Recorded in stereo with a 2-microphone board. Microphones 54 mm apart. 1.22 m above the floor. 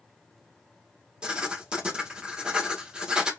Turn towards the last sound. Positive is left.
turn(degrees=-15)  # may be behind; listen again after turning